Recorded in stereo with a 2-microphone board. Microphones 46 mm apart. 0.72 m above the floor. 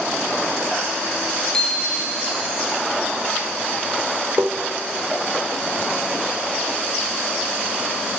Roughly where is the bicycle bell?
Centre.